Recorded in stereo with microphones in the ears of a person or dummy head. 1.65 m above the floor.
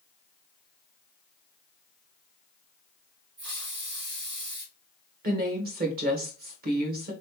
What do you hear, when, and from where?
3.4 s a hiss: 55° right (ahead or behind), 3 m
5.2 s a woman speaking: 50° right (ahead or behind), 1.2 m